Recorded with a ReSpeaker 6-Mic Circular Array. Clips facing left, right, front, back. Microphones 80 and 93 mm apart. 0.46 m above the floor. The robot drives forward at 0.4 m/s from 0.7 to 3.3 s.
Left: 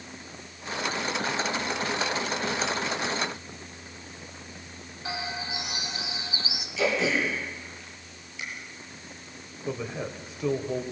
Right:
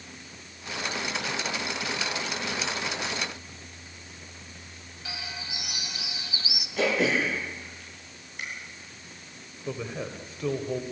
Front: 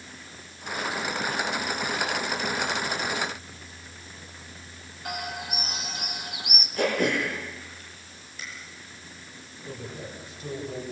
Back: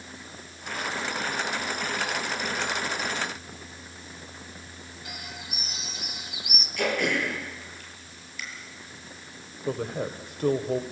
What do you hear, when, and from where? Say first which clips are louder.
5.0 s a bird: left 6 dB, front 10 dB; 30° left, 1.5 m
6.8 s throat clearing: right 1 dB, front 2 dB; 55° right, 9 m
9.7 s a man speaking: left 1 dB, back 9 dB; 175° left, 1.8 m